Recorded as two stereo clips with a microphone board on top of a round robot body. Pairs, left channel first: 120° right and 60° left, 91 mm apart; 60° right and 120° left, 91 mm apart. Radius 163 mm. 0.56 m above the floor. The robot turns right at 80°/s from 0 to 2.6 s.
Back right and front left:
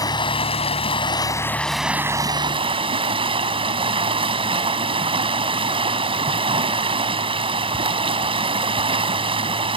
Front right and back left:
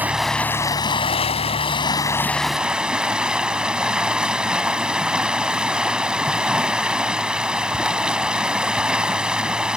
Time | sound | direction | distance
0.0 | running water | 170° right | ?